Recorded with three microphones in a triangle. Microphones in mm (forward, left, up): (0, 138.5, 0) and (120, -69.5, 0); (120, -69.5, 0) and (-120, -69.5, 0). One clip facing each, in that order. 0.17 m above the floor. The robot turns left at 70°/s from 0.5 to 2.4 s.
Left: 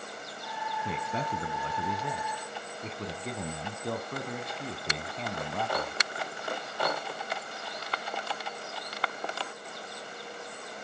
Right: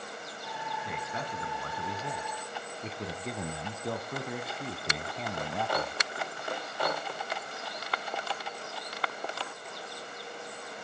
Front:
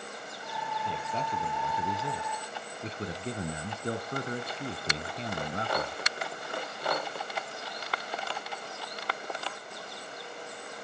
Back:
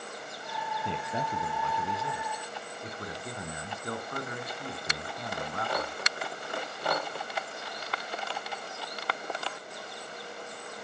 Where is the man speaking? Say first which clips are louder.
Left 6 dB, back 2 dB; 135° left, 1.3 m; by 6.0 s 25° left, 1.3 m.